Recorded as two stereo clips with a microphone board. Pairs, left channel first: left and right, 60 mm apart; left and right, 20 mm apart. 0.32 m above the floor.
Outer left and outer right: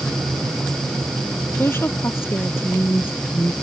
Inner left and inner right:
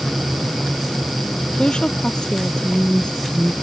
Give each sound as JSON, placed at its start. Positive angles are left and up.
{"t": 1.6, "sound": "a woman speaking", "side_deg": 45}